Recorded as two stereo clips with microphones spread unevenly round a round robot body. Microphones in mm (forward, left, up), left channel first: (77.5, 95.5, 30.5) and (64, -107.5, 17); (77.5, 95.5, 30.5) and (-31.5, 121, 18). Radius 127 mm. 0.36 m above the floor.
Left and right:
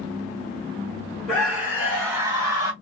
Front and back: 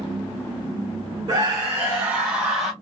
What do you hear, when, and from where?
1.3 s a scream: straight behind, 1.3 m; by 2.7 s 115° right, 1.2 m